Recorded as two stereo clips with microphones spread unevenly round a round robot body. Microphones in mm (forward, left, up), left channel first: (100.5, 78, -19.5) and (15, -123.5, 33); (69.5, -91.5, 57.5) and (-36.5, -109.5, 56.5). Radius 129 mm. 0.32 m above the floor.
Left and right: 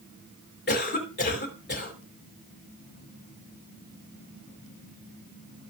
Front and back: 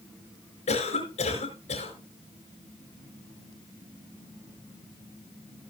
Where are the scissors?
No scissors in this recording.